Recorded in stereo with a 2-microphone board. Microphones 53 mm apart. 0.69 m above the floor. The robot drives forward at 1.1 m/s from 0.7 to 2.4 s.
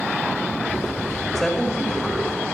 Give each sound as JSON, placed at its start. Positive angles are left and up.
{"t": 1.4, "sound": "a woman speaking", "side_deg": 5, "distance_m": 2.5}